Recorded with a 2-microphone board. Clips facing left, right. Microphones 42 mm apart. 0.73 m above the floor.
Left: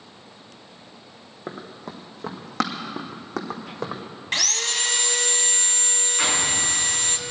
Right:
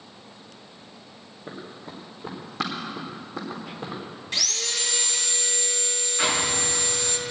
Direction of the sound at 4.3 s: 55° left (ahead or behind).